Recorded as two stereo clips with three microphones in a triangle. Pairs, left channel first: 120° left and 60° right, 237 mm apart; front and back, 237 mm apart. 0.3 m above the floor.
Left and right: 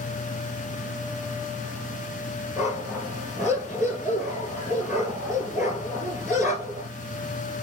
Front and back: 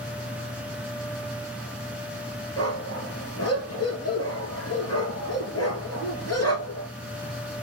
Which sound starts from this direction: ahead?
A dog barking, at 2.6 s.